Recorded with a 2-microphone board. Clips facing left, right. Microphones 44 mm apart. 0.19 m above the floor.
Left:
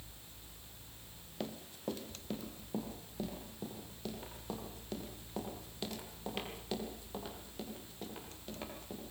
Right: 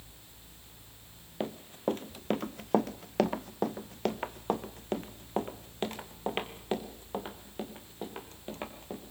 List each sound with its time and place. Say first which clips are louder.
1.4 s running footsteps: right 8 dB; 30° right (ahead or behind), 1.5 m